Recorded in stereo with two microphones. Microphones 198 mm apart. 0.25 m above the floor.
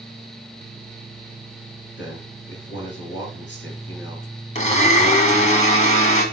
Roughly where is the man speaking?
Left.